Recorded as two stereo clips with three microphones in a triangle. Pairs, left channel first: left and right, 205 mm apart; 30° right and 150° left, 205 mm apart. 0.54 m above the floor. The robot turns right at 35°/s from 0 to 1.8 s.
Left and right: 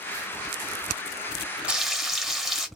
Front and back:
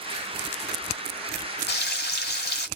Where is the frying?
5° right, 1.1 m; by 2.7 s straight ahead, 1.1 m.